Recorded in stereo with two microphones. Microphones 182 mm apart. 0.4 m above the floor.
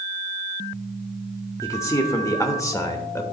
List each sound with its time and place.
1.6 s a man speaking: 15° left (ahead or behind), 0.8 m